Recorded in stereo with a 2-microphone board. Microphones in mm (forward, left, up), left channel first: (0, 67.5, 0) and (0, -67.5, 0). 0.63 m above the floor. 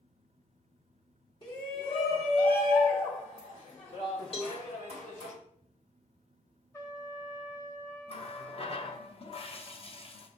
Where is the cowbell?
45° left (ahead or behind), 1.1 m.